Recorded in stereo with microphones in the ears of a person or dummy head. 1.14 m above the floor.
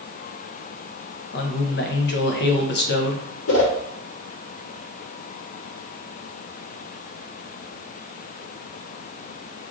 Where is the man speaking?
45° left (ahead or behind), 0.6 m.